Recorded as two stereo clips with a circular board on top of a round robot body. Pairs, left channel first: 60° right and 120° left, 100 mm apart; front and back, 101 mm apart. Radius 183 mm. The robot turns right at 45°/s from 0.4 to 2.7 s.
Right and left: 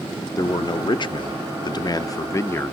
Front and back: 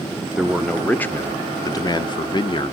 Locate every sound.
0.4 s a man speaking: 95° right, 0.8 m; by 2.7 s 5° left, 0.8 m